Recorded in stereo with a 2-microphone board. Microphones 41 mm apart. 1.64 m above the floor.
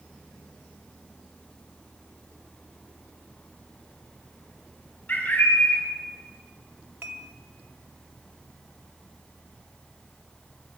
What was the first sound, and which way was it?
A bird, 40° left (ahead or behind).